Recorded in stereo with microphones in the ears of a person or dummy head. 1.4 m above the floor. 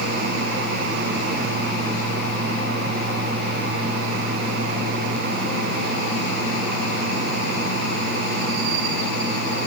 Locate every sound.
Only background noise.